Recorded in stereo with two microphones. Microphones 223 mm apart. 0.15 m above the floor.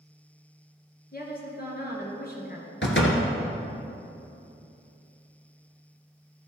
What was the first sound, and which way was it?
A woman speaking, 45° left (ahead or behind).